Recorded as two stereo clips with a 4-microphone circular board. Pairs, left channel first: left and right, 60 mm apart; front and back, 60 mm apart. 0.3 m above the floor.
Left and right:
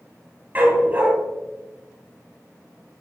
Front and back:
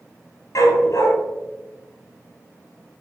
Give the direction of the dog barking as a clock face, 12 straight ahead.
1 o'clock.